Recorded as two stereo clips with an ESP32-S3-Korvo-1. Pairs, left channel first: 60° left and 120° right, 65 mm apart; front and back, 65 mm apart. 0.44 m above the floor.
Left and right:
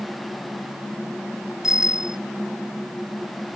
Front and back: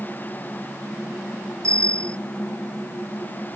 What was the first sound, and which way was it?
A bicycle bell, 160° left.